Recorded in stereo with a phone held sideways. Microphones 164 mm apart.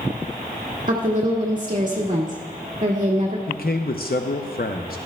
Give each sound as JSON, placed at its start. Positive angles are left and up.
{"t": 0.9, "sound": "a woman speaking", "side_deg": -50, "distance_m": 1.8}
{"t": 3.5, "sound": "a man speaking", "side_deg": 65, "distance_m": 0.7}